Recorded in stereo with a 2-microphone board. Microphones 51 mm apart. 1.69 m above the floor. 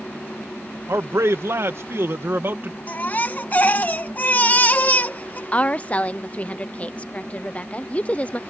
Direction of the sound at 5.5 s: 30° left (ahead or behind).